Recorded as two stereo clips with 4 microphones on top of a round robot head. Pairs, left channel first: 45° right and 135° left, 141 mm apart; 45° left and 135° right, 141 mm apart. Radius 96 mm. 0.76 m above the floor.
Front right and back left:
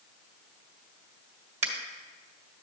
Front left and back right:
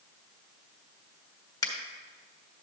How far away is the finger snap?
About 1.7 m.